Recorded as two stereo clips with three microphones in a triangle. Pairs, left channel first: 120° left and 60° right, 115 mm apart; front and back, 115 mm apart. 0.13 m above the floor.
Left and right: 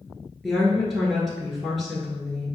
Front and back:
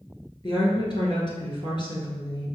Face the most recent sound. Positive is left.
turn(degrees=30)